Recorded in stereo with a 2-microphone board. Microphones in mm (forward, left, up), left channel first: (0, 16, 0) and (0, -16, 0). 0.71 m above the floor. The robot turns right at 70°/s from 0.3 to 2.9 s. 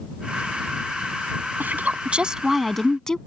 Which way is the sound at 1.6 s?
75° right.